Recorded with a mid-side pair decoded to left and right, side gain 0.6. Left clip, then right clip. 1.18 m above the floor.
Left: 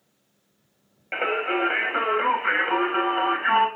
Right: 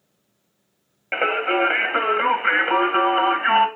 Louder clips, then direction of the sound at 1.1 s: Right 4 dB; 30° right.